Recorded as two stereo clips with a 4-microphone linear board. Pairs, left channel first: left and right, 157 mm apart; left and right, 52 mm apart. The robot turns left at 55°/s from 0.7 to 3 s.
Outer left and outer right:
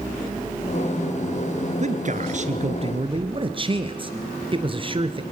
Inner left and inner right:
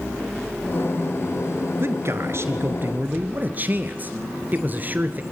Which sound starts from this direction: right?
A man speaking, at 1.8 s.